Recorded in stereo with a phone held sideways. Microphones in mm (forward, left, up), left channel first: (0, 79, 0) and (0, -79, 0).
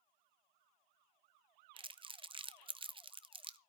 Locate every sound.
1.8 s crumpling: 35° right (ahead or behind), 0.6 m